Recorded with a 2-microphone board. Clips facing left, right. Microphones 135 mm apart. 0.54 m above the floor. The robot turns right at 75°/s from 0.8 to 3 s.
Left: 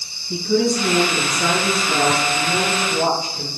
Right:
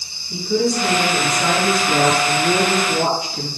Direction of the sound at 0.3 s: 110° left.